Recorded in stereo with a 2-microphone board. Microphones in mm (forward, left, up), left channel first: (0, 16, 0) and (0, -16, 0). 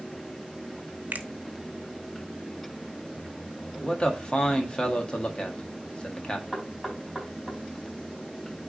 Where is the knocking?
5° right (ahead or behind), 5 m.